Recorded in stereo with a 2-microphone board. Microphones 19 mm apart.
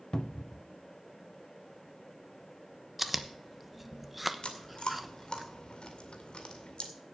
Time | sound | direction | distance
0.1 | a cupboard door | 40° left (ahead or behind) | 0.5 m
3.0 | chewing | 10° right (ahead or behind) | 0.9 m
4.4 | chewing | 50° left (ahead or behind) | 2 m